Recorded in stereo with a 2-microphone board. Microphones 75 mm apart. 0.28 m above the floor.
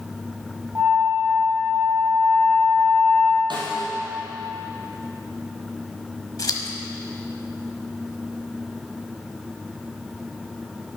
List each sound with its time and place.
0.8 s a flute: 25° right (ahead or behind), 1.8 m
3.5 s a snare drum: 80° right, 1.8 m
6.4 s scissors: 55° left (ahead or behind), 0.9 m